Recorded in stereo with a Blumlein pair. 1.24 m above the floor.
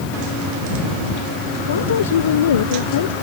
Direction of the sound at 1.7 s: 65° left.